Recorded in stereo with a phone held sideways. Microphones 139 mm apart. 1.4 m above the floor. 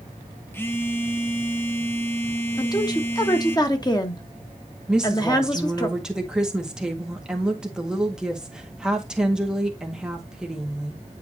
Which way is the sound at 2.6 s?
30° left (ahead or behind).